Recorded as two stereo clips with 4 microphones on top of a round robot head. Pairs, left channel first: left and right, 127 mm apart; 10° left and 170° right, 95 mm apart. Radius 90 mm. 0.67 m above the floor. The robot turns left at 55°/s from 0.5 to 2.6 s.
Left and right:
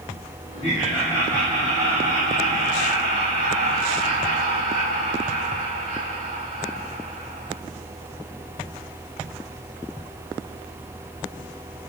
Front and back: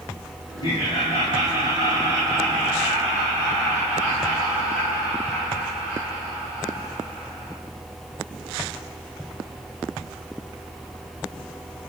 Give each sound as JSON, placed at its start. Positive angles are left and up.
{"t": 0.6, "sound": "laughter", "azimuth_deg": 20, "distance_m": 6.0}